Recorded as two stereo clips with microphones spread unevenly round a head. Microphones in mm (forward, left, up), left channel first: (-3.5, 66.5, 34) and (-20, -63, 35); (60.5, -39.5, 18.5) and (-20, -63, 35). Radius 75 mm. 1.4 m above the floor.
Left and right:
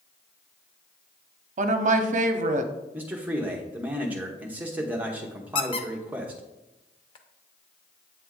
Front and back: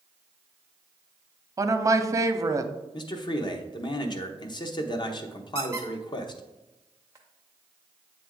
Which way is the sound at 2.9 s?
15° right.